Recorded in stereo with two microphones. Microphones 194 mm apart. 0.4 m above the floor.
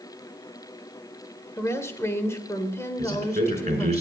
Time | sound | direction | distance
1.6 | a woman speaking | 15° left (ahead or behind) | 1.6 m
3.0 | a man speaking | 35° right (ahead or behind) | 5 m